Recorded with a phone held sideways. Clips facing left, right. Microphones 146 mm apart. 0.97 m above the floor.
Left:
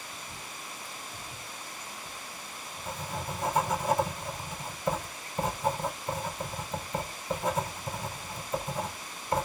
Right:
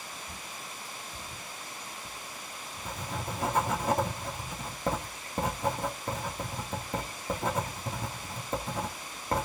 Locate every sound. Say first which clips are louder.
0.1 s a bird: even; 35° right (ahead or behind), 7.5 m
2.0 s writing: even; 60° right (ahead or behind), 2.5 m